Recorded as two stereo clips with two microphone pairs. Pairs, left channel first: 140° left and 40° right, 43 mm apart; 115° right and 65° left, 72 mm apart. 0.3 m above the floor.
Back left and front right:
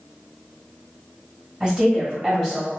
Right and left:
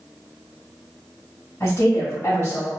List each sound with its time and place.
1.6 s a woman speaking: 115° right, 1.6 m